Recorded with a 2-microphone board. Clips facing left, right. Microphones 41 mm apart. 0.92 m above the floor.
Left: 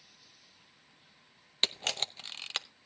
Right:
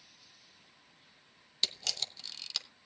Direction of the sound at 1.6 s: 40° left (ahead or behind).